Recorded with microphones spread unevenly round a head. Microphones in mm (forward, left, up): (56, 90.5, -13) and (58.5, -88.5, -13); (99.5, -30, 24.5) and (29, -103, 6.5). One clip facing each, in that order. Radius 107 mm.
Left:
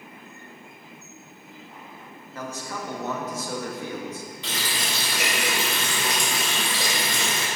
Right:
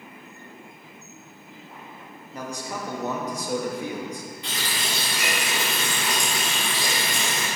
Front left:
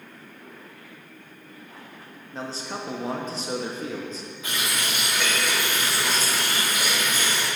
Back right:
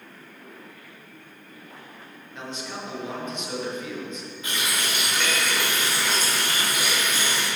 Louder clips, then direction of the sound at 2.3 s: Right 1 dB, front left 2 dB; 10° right.